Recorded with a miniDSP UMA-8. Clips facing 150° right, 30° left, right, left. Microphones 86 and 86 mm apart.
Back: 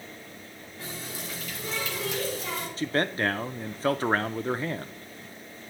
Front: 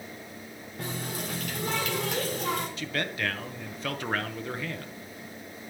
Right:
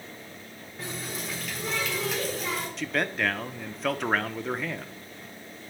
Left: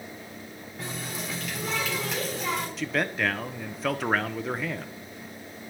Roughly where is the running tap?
Ahead.